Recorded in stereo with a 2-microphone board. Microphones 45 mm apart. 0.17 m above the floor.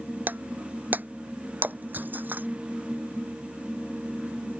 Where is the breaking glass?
45° right (ahead or behind).